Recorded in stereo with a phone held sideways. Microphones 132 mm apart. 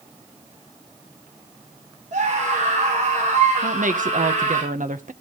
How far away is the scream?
About 3.5 m.